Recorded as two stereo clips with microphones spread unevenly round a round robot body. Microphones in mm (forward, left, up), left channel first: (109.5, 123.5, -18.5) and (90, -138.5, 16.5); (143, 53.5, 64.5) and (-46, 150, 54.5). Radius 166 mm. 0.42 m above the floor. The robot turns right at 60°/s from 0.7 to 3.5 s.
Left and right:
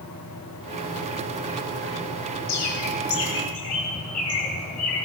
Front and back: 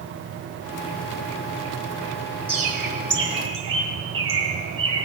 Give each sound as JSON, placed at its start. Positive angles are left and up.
{"t": 2.5, "sound": "a bird", "azimuth_deg": 90, "distance_m": 2.5}